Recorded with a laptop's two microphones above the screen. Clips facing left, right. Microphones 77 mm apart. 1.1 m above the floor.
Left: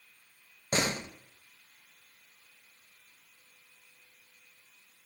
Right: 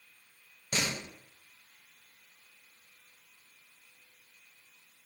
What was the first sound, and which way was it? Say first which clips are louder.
A door slam: left 4 dB; 35° left (ahead or behind).